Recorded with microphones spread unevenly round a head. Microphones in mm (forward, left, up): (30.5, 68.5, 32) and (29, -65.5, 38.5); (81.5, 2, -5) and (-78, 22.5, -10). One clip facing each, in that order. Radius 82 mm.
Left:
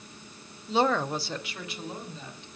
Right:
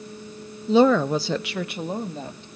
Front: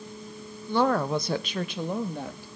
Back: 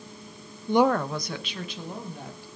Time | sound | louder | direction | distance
0.7 | a woman speaking | right 9 dB, back 2 dB | 120° right | 0.6 m